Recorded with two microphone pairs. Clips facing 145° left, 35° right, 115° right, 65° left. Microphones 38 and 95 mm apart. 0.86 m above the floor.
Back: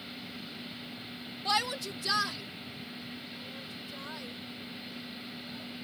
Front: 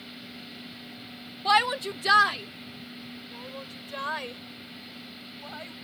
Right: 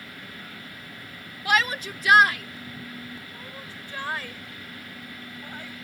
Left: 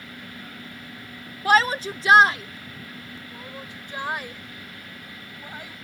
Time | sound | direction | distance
1.4 | a shout | 20° left | ?